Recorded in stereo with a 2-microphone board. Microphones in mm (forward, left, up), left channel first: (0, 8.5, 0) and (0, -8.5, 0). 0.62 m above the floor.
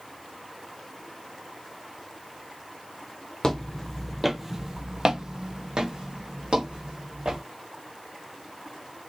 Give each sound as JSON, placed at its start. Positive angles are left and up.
{"t": 3.4, "sound": "footsteps", "side_deg": 35, "distance_m": 0.7}